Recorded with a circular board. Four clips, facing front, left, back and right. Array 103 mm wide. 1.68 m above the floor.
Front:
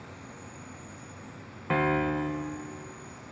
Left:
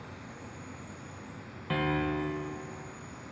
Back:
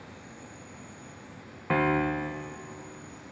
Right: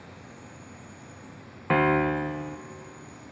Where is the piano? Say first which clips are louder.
Right 8 dB, back 1 dB; 100° right, 0.9 m.